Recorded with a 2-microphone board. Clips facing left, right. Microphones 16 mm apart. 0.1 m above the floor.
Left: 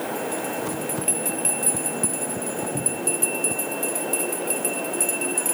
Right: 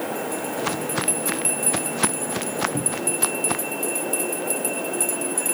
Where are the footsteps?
40° right (ahead or behind); by 3.7 s 85° right.